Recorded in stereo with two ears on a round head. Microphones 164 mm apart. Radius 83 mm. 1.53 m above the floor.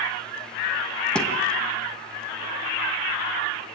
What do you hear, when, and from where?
1.1 s a thud: 5° left (ahead or behind), 2.5 m